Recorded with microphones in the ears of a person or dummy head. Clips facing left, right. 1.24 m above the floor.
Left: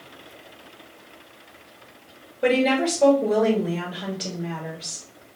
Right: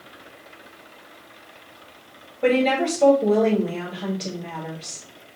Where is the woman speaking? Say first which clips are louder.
Right 1 dB; 5° left (ahead or behind), 2.5 m.